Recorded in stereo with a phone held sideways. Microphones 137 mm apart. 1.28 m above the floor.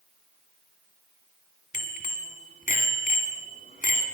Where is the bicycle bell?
80° left, 2.5 m.